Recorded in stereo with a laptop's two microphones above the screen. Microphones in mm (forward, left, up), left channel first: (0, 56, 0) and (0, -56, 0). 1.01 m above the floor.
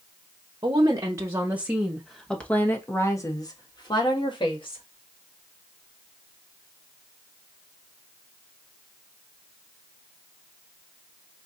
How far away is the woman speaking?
About 1.1 m.